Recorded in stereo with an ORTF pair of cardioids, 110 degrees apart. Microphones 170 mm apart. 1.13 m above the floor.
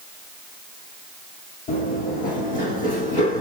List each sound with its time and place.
1.7 s running footsteps: 60° left, 4 m; by 3.4 s 65° left, 3.5 m